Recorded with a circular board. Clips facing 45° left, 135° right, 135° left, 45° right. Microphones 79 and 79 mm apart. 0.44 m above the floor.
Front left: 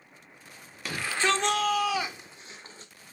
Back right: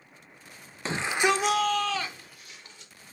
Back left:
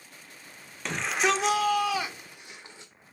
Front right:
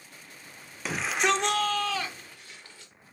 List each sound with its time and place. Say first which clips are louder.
0.8 s a shout: back right 2 dB, even; 120° right, 0.9 m; by 2.9 s 75° left, 1.1 m